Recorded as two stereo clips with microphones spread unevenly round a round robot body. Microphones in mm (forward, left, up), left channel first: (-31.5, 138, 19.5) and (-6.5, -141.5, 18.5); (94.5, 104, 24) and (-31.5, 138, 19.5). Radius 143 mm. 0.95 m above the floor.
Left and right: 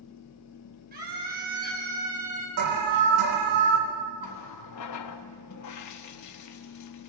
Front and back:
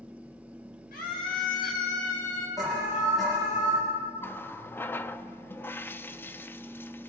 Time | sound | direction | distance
0.9 | a scream | 25° right | 5.5 m
2.6 | an alarm | 105° right | 3.5 m
4.2 | a running tap | 60° left | 1.0 m